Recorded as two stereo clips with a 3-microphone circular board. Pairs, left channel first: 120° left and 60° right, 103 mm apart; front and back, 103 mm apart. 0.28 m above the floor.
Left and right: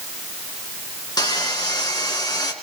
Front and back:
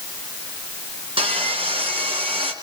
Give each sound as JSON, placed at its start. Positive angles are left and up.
{"t": 1.2, "sound": "sawing", "azimuth_deg": 165, "distance_m": 3.5}